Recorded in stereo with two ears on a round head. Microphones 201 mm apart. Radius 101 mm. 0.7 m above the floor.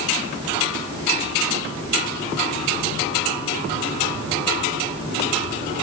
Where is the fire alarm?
No fire alarm in this recording.